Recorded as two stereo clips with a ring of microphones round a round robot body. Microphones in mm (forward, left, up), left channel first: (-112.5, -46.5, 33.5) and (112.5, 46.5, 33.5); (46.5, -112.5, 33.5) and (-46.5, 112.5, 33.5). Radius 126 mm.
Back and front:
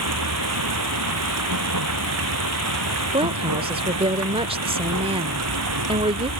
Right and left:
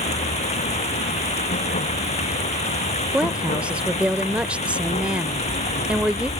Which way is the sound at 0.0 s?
5° right.